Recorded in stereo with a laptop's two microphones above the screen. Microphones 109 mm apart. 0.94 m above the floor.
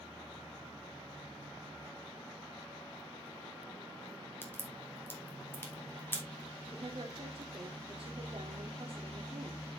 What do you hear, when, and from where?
4.4 s a crack: 20° left (ahead or behind), 2.5 m
6.7 s a woman speaking: 60° right (ahead or behind), 2.5 m